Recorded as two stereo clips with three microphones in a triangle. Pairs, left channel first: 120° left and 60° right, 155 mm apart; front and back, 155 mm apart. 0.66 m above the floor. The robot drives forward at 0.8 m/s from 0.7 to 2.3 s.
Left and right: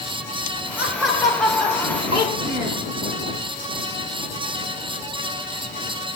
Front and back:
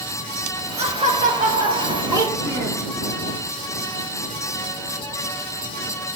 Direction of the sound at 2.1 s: 115° right.